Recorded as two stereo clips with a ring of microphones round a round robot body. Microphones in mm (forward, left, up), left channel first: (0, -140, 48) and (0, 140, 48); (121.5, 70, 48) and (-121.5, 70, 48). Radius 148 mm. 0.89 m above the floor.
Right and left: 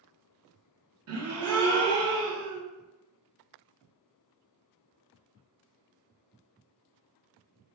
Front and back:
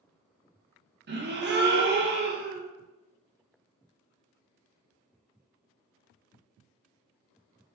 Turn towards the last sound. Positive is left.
turn(degrees=130)